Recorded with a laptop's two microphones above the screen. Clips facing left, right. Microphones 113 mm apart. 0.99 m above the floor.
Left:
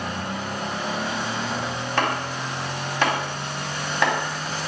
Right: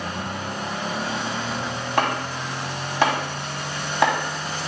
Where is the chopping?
15° right (ahead or behind), 2 m.